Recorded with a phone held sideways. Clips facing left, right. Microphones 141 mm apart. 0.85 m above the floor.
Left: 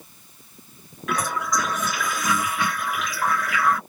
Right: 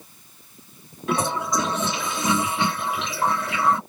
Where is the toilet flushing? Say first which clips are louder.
Right 2 dB; 30° right (ahead or behind).